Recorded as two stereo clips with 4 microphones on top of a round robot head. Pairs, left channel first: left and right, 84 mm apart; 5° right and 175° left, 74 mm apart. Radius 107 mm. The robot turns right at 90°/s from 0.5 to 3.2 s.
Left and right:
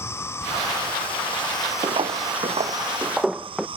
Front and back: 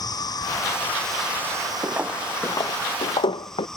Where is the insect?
25° left; by 3.8 s 90° right.